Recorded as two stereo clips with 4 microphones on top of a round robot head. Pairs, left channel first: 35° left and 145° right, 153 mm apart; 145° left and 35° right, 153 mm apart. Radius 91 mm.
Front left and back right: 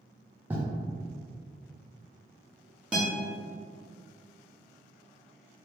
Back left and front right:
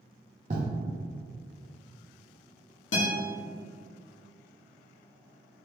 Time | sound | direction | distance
0.5 | writing | 70° right | 0.7 m
2.9 | a guitar | 130° left | 0.9 m